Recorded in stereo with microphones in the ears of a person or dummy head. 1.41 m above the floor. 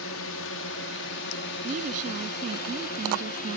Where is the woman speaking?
40° right (ahead or behind).